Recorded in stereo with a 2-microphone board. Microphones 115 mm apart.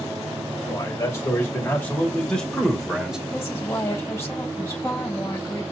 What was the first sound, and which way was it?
A man speaking, 30° left (ahead or behind).